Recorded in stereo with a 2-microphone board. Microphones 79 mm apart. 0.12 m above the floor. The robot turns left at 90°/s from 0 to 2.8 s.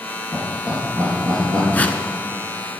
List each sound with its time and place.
0.3 s laughter: 5° left (ahead or behind), 3 m; by 1.6 s 50° right (ahead or behind), 3 m
1.7 s a whoosh: 25° left (ahead or behind), 0.6 m; by 2.0 s 15° left (ahead or behind), 0.6 m